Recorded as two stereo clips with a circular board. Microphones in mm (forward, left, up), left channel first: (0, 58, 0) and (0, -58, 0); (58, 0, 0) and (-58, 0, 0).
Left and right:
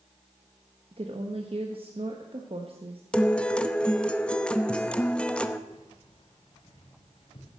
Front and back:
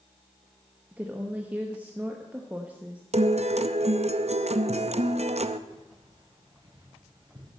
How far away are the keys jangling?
About 3 m.